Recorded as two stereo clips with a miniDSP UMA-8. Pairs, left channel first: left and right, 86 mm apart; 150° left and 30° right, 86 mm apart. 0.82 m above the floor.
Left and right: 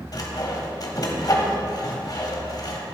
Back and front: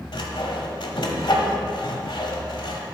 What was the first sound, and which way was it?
Sawing, 130° left.